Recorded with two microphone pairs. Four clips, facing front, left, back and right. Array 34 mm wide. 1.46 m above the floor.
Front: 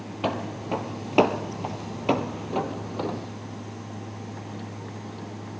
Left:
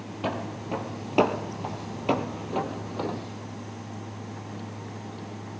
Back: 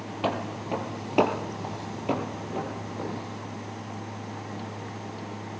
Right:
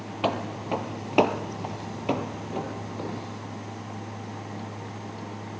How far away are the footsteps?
About 1.9 m.